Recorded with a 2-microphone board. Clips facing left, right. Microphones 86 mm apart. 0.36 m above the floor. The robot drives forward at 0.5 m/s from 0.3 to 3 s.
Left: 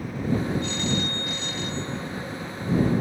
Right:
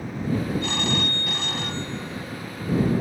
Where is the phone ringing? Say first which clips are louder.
Right 1 dB; 70° right (ahead or behind); by 3.0 s 50° right (ahead or behind).